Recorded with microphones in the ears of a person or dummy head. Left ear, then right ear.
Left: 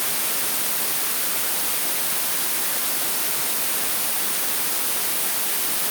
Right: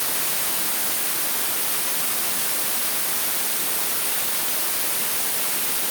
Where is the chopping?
No chopping in this recording.